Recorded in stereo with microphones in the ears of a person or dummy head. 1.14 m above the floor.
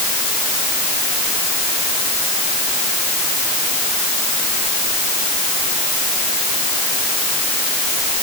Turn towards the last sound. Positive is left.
No sound to turn to.